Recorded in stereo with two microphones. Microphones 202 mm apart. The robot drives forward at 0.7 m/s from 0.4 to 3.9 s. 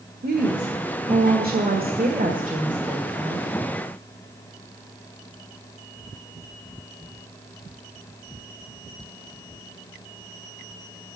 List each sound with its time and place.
0.2 s a woman speaking: 45° right (ahead or behind), 1.5 m; by 3.5 s 30° right (ahead or behind), 2 m